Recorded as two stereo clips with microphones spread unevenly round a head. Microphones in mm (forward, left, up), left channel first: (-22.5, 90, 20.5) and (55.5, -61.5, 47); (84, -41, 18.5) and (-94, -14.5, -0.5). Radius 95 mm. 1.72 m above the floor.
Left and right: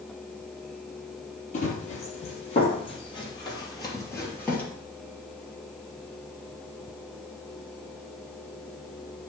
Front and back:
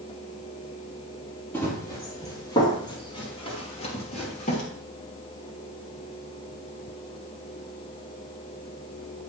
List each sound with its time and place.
1.5 s running footsteps: 65° left, 3 m; by 4.6 s 30° left, 3 m